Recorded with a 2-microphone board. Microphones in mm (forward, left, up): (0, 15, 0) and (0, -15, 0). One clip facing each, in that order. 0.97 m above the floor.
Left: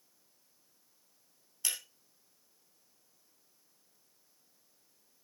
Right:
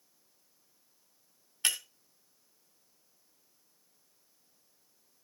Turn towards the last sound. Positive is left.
turn(degrees=-50)  # may be behind; listen again after turning